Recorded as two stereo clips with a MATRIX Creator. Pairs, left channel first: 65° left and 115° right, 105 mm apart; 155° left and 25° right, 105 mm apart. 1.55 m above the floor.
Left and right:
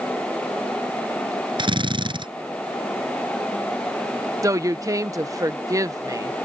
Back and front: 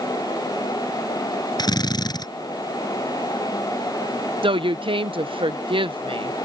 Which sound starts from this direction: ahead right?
A woman speaking, at 4.4 s.